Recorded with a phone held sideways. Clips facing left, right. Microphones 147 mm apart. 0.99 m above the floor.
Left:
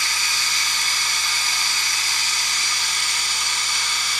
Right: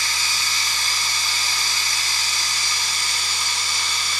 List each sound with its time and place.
0.0 s running water: 35° right (ahead or behind), 1.3 m